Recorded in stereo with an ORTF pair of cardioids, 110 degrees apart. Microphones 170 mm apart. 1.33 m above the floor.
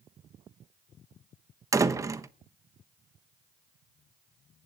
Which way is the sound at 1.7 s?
20° right.